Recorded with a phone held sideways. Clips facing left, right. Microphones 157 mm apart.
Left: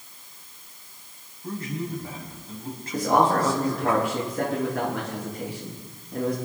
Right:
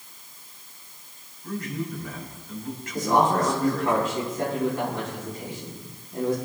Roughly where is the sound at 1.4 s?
Left.